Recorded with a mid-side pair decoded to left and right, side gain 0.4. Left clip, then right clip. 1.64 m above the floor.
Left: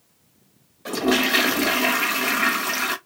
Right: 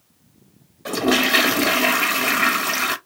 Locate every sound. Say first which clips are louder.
0.8 s a toilet flushing: right 2 dB; 20° right, 0.6 m